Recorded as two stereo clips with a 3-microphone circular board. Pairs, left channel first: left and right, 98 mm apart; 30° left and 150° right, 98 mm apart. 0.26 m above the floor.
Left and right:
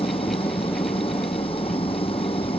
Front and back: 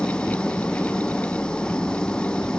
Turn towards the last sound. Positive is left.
turn(degrees=110)